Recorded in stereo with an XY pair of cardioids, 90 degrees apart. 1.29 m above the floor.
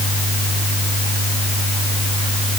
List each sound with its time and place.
Only background noise.